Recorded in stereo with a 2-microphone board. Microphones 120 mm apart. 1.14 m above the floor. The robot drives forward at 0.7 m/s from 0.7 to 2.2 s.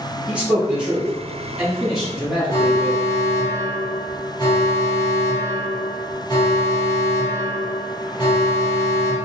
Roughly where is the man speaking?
Centre.